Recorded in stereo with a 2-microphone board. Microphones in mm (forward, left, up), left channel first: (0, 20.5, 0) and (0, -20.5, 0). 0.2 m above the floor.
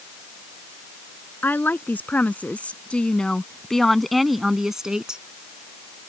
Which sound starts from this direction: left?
A woman speaking, at 1.4 s.